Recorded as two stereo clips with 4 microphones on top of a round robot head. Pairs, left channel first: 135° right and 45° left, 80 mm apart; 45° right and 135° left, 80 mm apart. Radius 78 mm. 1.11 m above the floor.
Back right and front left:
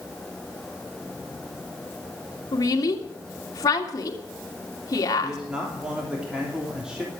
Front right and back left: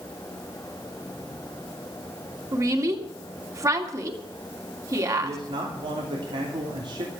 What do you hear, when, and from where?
2.5 s a woman speaking: straight behind, 3 m
5.2 s a man speaking: 125° left, 3 m